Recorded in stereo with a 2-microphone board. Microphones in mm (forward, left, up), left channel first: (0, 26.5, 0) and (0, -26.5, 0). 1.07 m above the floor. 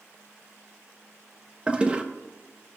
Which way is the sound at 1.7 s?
20° right (ahead or behind).